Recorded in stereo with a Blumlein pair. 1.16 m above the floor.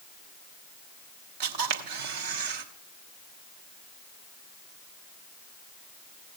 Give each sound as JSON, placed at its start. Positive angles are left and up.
{"t": 1.4, "sound": "a camera shutter", "azimuth_deg": -45, "distance_m": 1.3}